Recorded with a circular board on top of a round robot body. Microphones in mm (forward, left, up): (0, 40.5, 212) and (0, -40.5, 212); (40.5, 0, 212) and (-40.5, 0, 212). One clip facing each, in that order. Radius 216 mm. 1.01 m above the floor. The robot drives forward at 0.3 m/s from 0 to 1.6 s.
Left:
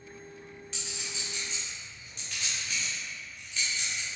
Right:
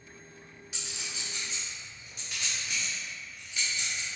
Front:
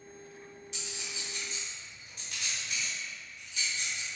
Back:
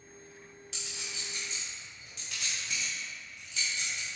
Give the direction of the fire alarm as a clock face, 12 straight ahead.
I don't hear a fire alarm.